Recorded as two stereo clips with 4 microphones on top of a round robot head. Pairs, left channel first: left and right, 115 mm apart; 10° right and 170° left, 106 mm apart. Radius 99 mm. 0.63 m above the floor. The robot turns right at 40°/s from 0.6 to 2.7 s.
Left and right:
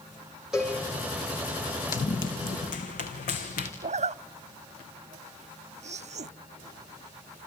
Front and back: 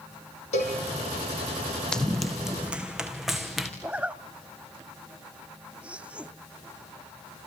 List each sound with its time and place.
0.5 s a cowbell: 5° right, 7 m; by 0.8 s 5° left, 7 m
1.9 s running footsteps: 75° left, 2.5 m; by 3.7 s 80° left, 4 m
3.8 s a zipper: 110° right, 0.8 m